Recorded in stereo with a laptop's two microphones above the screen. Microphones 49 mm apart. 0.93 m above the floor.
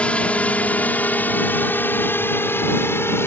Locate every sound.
0.0 s a drone: 25° left (ahead or behind); by 3.3 s 55° left (ahead or behind)